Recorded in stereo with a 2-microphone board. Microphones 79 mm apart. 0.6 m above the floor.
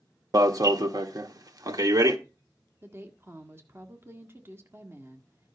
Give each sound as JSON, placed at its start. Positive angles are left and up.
{"t": 0.3, "sound": "an alarm", "side_deg": -50, "distance_m": 1.2}
{"t": 2.8, "sound": "a woman speaking", "side_deg": -30, "distance_m": 1.5}